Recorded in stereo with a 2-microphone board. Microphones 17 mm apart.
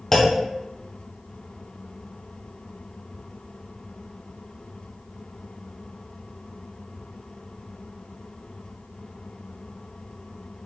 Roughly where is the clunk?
Left.